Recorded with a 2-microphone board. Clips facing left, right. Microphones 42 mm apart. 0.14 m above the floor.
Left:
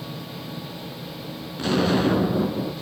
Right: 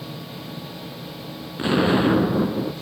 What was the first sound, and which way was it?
An explosion, 25° right (ahead or behind).